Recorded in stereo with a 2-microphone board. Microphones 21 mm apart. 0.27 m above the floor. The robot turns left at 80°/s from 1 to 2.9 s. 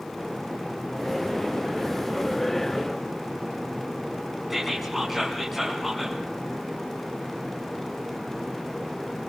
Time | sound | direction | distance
4.5 | whispering | centre (ahead or behind) | 3 m